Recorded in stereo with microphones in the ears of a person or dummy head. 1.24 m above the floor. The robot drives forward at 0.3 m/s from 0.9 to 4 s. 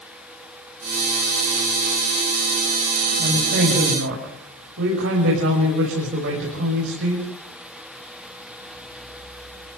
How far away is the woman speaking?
About 7 m.